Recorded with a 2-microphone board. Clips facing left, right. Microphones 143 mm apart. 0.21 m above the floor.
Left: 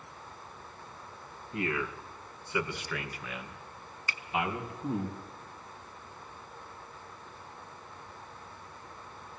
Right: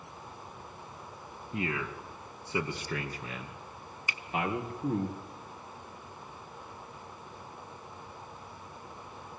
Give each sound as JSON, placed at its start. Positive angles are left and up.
{"t": 1.5, "sound": "a man speaking", "side_deg": -25, "distance_m": 2.0}
{"t": 4.1, "sound": "a finger snap", "side_deg": -20, "distance_m": 1.6}